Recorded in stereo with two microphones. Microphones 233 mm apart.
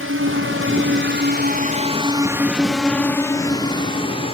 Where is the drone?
75° right (ahead or behind); by 4.3 s 25° left (ahead or behind).